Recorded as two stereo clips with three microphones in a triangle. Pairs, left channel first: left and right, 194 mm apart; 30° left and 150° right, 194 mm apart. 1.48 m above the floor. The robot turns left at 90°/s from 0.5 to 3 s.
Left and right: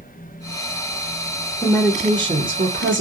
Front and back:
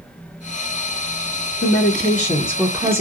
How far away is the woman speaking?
About 0.7 m.